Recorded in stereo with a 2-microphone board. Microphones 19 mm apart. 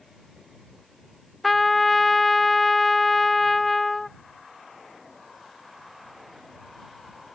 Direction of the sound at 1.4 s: 10° left (ahead or behind).